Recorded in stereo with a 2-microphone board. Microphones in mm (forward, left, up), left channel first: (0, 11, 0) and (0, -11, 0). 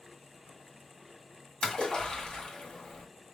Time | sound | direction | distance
1.6 | a splash | 50° left (ahead or behind) | 2.5 m